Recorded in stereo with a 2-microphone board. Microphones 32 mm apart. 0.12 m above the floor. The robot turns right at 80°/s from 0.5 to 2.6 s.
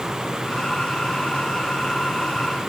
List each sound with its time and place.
Only background noise.